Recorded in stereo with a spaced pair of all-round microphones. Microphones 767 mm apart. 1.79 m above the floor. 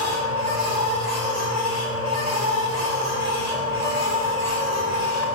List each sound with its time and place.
0.0 s a machine running: 55° left (ahead or behind), 7 m